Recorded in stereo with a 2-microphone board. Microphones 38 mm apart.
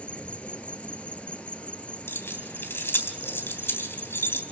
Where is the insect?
35° left (ahead or behind), 1.5 m.